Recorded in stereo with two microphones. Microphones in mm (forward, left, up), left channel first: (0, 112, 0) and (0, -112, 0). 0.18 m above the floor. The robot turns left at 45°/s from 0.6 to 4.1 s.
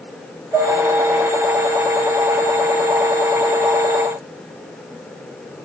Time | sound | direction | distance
0.5 | dishes clattering | 10° right (ahead or behind) | 8 m